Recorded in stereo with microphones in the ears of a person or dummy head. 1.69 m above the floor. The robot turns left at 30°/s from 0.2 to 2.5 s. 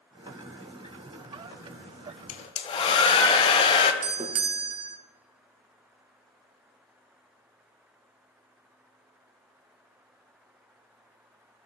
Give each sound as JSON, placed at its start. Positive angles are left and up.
{"t": 2.3, "sound": "a hair dryer", "side_deg": 35, "distance_m": 0.5}
{"t": 4.0, "sound": "a doorbell", "side_deg": -25, "distance_m": 0.6}